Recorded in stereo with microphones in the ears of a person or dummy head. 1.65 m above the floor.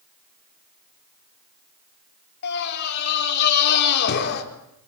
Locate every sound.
2.4 s a scream: 60° left (ahead or behind), 4.5 m